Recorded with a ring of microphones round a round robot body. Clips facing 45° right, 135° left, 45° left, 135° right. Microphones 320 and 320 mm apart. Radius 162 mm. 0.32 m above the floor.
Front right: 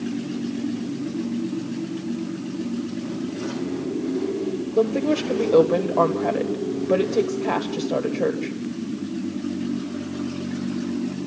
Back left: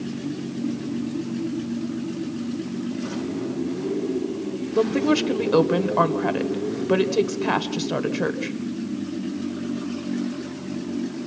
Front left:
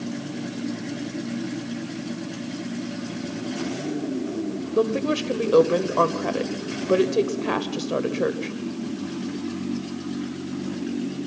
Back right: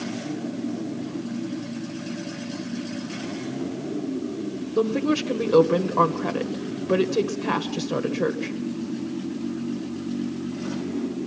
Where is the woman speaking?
145° left, 1.5 m.